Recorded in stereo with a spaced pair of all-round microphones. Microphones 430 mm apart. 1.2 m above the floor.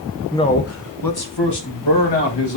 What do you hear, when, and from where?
0.3 s a man speaking: 5° left (ahead or behind), 0.7 m; by 2.6 s 75° left (ahead or behind), 3 m